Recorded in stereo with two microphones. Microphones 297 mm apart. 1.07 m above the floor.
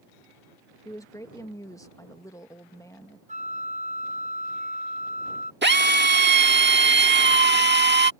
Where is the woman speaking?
10° left (ahead or behind).